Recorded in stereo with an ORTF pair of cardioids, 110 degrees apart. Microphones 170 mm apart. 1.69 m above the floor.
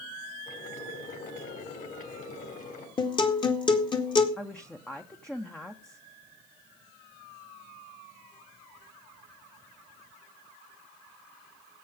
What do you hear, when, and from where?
0.5 s boiling: 50° left, 5 m
3.0 s a guitar: 30° left, 2 m
4.4 s a woman speaking: 5° left, 1.0 m